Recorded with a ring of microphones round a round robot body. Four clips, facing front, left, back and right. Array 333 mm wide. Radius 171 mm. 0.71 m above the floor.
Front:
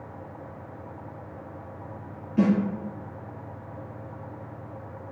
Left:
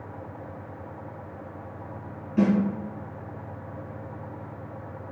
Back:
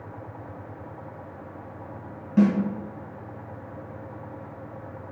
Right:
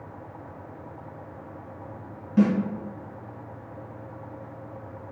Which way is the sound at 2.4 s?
160° right.